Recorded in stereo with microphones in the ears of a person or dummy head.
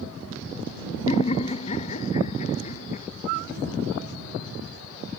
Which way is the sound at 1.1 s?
35° left (ahead or behind).